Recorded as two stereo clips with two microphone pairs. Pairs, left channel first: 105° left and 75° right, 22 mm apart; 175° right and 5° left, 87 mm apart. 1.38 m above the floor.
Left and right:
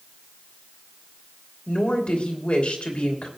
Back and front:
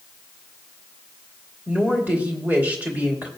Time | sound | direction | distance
1.7 | a woman speaking | 80° left | 2.5 m